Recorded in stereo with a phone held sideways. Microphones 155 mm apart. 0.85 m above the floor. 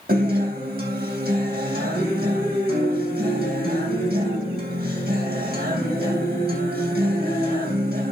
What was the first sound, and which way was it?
A guitar, 70° right (ahead or behind).